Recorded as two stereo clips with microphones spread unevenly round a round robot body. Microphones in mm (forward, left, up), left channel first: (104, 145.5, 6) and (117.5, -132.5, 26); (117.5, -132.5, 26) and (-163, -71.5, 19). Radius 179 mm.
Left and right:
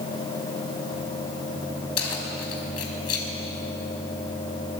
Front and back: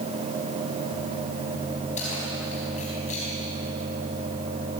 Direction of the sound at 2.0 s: 60° left.